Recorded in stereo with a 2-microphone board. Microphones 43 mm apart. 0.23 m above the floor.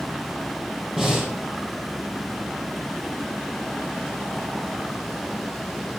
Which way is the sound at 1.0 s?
5° right (ahead or behind).